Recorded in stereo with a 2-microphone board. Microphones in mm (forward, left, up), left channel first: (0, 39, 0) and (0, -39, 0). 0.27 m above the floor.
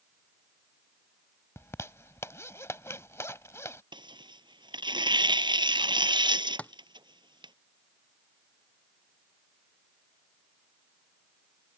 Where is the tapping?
15° left (ahead or behind).